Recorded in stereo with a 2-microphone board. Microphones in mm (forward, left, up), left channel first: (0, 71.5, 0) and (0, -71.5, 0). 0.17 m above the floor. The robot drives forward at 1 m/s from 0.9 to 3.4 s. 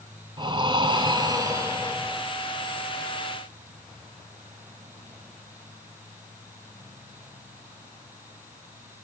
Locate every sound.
0.4 s breathing: 35° right (ahead or behind), 0.9 m; by 2.2 s 15° right (ahead or behind), 1.9 m